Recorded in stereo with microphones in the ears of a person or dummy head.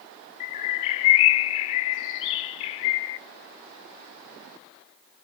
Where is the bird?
30° left (ahead or behind), 0.5 m.